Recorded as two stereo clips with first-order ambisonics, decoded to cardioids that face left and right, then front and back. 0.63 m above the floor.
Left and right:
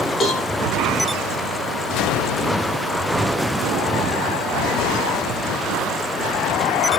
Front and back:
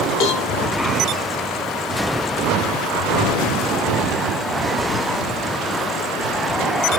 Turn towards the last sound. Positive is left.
turn(degrees=20)